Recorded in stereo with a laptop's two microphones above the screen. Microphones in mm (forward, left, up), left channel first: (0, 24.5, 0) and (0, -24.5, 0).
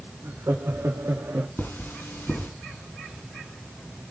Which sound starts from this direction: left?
Cutlery clinking, at 1.6 s.